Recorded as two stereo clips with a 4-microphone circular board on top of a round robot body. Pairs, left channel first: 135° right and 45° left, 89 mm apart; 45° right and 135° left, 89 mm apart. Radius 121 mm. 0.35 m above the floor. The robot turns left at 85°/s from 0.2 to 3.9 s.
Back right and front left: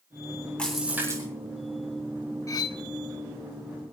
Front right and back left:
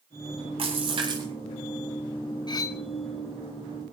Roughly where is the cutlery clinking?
Right.